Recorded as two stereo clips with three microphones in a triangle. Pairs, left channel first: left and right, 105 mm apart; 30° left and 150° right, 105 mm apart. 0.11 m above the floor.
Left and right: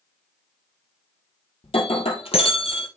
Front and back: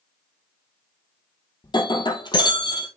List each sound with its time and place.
1.6 s breaking glass: 70° left, 1.6 m